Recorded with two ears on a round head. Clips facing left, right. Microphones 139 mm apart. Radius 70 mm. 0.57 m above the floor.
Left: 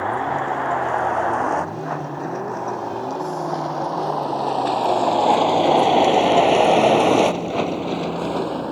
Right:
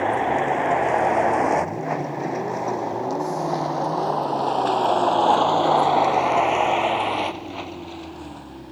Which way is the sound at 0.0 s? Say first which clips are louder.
Right 2 dB; 25° right (ahead or behind).